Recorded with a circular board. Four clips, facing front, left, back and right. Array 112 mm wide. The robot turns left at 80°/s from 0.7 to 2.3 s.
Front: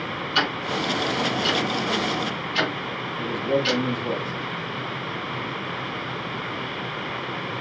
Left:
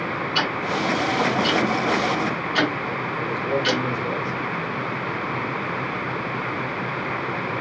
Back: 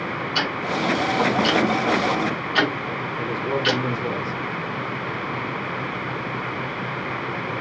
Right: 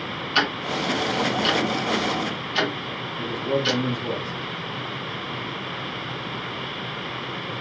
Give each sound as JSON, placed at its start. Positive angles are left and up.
{"t": 0.3, "sound": "ticking", "azimuth_deg": -75, "distance_m": 2.0}
{"t": 3.2, "sound": "a man speaking", "azimuth_deg": -170, "distance_m": 3.0}